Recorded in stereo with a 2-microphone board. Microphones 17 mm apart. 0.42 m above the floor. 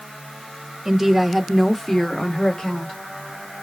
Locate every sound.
0.8 s a woman speaking: 25° right (ahead or behind), 0.8 m; by 3.0 s 50° left (ahead or behind), 1.1 m